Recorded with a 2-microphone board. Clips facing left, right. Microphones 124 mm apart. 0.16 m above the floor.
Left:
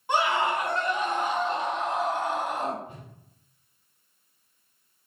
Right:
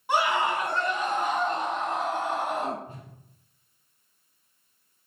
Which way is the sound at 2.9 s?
40° right (ahead or behind).